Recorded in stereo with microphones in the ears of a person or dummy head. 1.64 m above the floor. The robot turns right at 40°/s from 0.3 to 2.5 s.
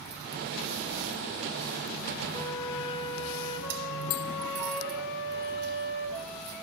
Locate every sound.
2.3 s a flute: 30° left (ahead or behind), 4.5 m; by 6.5 s 35° left (ahead or behind), 4.5 m